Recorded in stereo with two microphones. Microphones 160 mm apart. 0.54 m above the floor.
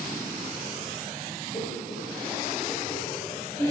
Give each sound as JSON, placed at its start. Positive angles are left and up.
{"t": 1.5, "sound": "laughter", "side_deg": 45, "distance_m": 2.0}